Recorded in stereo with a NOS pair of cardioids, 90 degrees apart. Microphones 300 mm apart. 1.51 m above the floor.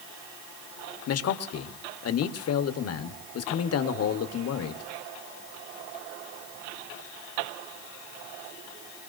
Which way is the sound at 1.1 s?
55° left.